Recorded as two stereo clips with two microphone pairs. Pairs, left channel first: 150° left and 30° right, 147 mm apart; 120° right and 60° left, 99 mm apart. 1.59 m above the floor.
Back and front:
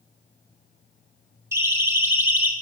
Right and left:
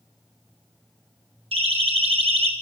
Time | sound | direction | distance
1.5 | a siren | 45° left | 7.5 m